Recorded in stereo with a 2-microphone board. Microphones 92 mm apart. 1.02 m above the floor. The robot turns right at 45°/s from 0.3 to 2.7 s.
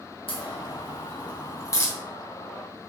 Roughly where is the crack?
Left.